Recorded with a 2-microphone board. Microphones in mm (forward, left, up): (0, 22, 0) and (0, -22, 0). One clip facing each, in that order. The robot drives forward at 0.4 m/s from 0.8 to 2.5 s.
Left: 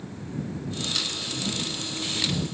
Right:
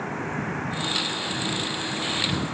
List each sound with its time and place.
0.0 s a vehicle: 60° right (ahead or behind)